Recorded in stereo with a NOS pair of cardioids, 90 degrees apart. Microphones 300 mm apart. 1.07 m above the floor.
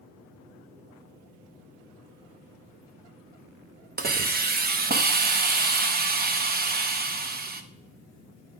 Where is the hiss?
30° right, 0.9 m.